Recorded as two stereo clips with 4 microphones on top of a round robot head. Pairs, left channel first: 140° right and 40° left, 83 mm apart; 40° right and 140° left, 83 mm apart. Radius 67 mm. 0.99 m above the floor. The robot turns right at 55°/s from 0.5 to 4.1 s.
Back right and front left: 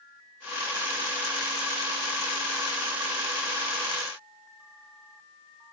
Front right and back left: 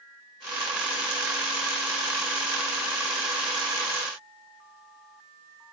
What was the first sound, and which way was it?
Only background noise.